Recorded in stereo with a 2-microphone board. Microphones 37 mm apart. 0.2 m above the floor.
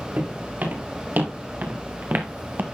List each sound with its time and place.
0.2 s footsteps: 55° right (ahead or behind), 4.5 m